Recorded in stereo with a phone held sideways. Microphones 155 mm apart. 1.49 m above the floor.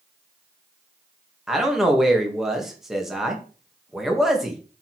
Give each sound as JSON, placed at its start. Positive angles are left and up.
{"t": 1.5, "sound": "a man speaking", "side_deg": 0, "distance_m": 2.0}